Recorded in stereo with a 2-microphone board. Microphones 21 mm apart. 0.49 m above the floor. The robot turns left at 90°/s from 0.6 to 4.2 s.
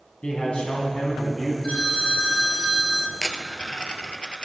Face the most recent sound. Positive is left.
turn(degrees=65)